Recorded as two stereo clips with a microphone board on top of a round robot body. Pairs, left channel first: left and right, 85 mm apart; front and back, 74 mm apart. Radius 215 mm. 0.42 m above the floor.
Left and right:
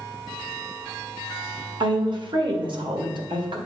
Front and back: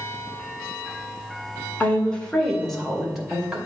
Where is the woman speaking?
70° right, 2 m; by 3.6 s 100° right, 2.5 m.